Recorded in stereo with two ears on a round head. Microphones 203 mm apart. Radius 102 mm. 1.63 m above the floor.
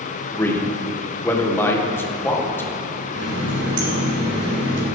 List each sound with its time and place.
0.3 s a man speaking: 10° left (ahead or behind), 1.5 m
3.1 s a running tap: 75° right (ahead or behind), 3 m